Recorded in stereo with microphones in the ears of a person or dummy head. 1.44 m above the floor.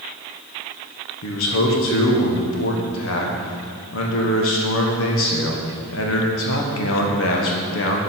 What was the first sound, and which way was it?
A man speaking, 70° left (ahead or behind).